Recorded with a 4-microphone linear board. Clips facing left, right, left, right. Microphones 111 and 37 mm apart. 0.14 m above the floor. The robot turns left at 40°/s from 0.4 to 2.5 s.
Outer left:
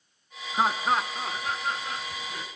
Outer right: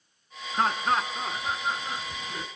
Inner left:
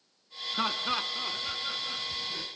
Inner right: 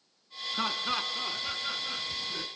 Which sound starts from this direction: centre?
Laughter, at 0.5 s.